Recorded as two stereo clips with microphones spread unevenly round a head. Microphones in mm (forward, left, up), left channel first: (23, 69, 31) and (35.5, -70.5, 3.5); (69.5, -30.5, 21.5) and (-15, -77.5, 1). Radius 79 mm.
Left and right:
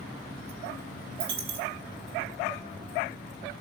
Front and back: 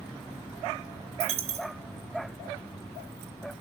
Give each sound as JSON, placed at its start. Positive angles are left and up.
{"t": 1.2, "sound": "a dropped coin", "azimuth_deg": -145, "distance_m": 4.5}